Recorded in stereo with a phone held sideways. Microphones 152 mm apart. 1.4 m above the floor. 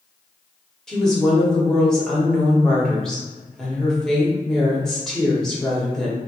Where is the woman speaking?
5° left (ahead or behind), 1.6 m.